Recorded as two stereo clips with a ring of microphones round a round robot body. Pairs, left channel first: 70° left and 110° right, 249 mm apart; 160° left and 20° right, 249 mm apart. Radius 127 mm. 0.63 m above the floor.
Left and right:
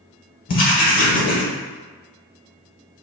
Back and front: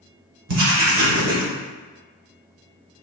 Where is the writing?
10° left, 1.1 m.